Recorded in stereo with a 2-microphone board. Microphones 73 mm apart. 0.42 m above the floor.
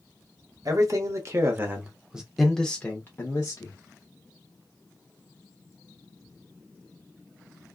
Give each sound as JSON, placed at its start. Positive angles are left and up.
{"t": 0.7, "sound": "a man speaking", "side_deg": -55, "distance_m": 1.1}